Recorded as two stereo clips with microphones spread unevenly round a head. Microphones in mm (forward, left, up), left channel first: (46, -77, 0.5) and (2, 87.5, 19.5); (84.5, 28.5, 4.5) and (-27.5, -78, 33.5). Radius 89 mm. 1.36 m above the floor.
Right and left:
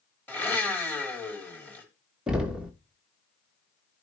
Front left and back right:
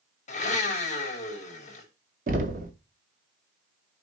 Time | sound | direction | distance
0.3 | a blender | 5° left | 2.5 m
2.3 | knocking | 175° right | 0.9 m